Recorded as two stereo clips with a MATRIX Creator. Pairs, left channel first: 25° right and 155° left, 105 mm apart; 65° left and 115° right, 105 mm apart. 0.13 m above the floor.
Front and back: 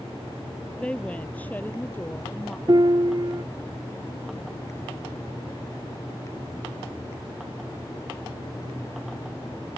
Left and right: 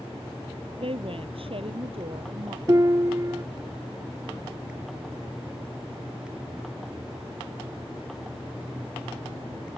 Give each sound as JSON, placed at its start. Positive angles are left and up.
{"t": 0.8, "sound": "a woman speaking", "azimuth_deg": -100}
{"t": 2.7, "sound": "a piano", "azimuth_deg": -165}